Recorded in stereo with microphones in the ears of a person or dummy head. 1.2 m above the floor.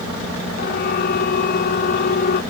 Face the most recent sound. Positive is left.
turn(degrees=50)  # may be behind; listen again after turning